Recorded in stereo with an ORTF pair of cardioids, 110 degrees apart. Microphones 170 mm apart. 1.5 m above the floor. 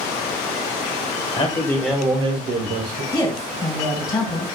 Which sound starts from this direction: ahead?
A woman speaking, at 3.1 s.